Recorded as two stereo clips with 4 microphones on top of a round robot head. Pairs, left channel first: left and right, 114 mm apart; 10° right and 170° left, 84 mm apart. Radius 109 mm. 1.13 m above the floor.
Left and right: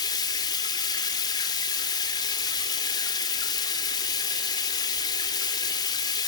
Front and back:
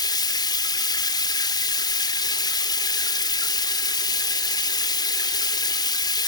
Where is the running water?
30° left, 3.5 m.